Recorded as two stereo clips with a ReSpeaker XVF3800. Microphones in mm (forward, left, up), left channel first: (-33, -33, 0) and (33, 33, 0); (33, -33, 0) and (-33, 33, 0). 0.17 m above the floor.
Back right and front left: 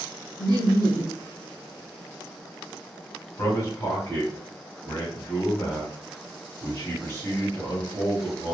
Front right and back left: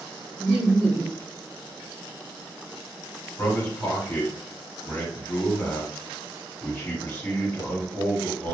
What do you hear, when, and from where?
0.4 s laughter: 115° right, 1.9 m
3.4 s a man speaking: 105° right, 1.7 m